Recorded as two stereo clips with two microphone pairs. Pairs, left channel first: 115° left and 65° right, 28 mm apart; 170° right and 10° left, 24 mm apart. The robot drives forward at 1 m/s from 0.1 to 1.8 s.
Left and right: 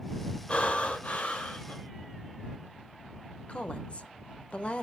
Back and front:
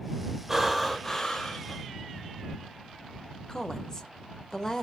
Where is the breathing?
85° left, 1.2 m; by 1.8 s 140° left, 1.7 m.